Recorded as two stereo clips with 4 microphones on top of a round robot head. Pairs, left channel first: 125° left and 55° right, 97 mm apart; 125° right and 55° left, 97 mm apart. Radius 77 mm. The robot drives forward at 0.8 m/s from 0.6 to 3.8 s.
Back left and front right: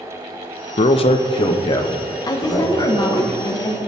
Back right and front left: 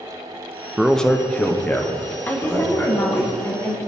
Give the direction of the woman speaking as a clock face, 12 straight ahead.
6 o'clock.